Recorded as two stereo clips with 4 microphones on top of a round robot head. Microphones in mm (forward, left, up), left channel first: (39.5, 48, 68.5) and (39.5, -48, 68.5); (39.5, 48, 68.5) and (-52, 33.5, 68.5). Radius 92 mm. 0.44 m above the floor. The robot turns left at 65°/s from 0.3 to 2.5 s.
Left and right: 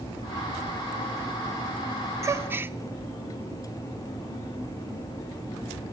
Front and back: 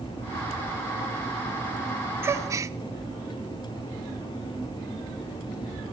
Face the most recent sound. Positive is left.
turn(degrees=-145)